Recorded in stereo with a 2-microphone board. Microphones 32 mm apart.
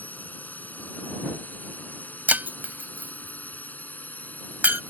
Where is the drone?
65° left (ahead or behind).